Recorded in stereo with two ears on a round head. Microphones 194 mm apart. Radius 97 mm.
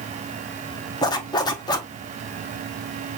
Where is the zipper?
20° left (ahead or behind), 1.0 m.